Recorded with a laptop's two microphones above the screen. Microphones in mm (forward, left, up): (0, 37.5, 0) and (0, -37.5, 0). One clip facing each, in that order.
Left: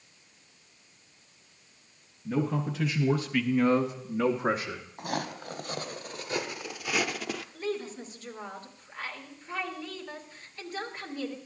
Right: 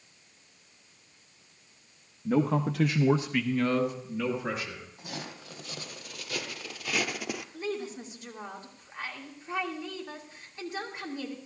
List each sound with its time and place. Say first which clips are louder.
2.2 s a man speaking: right 3 dB; 65° right (ahead or behind), 1.3 m; by 4.9 s 40° left (ahead or behind), 2 m
5.0 s footsteps: left 10 dB; 50° left (ahead or behind), 1.5 m; by 7.4 s 10° right (ahead or behind), 1.0 m
7.5 s a woman speaking: left 1 dB; 20° right (ahead or behind), 2 m